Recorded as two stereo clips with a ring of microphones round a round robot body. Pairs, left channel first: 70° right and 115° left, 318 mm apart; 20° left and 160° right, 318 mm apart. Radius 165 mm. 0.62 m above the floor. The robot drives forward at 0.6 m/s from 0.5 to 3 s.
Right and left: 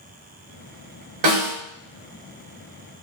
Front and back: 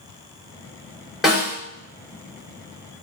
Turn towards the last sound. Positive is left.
turn(degrees=140)